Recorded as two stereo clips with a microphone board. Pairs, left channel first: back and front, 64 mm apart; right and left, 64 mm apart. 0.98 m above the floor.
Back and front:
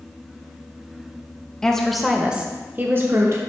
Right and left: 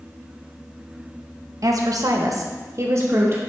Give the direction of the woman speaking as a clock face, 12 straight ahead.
9 o'clock.